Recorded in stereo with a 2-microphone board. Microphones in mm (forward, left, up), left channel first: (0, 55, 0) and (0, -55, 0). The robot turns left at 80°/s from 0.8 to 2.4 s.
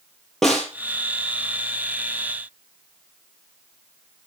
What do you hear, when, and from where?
0.4 s a snare drum: centre (ahead or behind), 4 m